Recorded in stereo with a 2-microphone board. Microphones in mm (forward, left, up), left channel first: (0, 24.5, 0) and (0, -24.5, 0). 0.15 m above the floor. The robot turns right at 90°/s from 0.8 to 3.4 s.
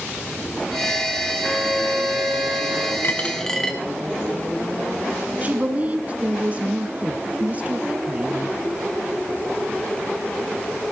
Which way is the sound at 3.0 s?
135° left.